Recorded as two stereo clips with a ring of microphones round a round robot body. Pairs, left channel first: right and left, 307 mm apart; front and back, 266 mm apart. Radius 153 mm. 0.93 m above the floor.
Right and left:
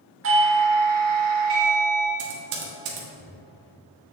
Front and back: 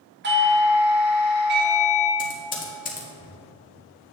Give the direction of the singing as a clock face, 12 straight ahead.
No singing in this recording.